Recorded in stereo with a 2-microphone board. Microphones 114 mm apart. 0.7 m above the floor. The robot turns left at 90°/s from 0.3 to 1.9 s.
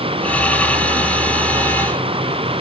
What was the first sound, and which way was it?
Only background noise.